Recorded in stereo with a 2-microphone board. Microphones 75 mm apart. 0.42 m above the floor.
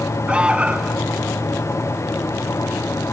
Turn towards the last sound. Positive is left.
turn(degrees=-15)  # may be behind; listen again after turning